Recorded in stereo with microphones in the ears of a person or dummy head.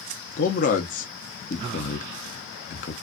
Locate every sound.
0.4 s a man speaking: 40° left (ahead or behind), 0.6 m